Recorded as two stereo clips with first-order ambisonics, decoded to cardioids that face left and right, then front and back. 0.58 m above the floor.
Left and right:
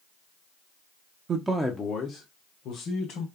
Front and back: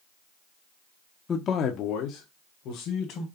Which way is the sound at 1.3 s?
55° right.